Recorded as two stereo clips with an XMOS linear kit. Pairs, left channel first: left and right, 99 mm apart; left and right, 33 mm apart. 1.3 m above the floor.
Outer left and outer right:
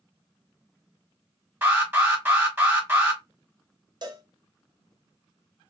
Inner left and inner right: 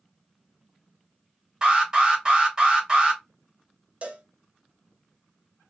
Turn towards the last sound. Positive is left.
turn(degrees=-45)  # may be behind; listen again after turning